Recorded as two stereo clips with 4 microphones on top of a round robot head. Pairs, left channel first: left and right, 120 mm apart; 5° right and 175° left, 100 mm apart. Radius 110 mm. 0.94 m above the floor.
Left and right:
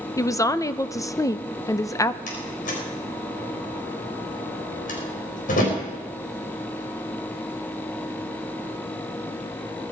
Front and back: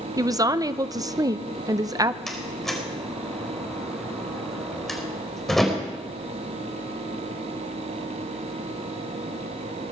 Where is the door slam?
80° left, 4 m.